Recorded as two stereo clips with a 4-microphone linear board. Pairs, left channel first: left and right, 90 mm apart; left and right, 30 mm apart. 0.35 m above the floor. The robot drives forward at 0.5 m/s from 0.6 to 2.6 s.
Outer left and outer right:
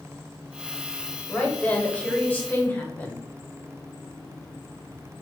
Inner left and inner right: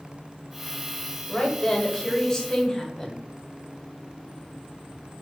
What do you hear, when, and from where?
1.3 s a woman speaking: 15° left (ahead or behind), 1.0 m; by 3.2 s 20° left (ahead or behind), 0.8 m